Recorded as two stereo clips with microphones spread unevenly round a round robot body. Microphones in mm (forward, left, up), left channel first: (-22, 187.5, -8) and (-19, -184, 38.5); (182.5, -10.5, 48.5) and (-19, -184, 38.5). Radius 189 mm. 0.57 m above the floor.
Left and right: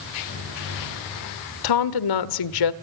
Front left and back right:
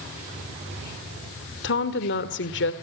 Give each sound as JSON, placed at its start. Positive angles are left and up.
{"t": 1.6, "sound": "a woman speaking", "azimuth_deg": 90, "distance_m": 1.5}